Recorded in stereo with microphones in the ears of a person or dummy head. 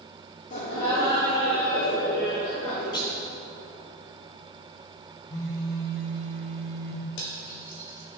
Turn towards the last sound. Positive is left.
turn(degrees=65)  # may be behind; listen again after turning